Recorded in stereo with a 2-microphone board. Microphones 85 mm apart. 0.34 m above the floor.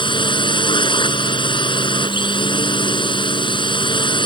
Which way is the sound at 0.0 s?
70° left (ahead or behind).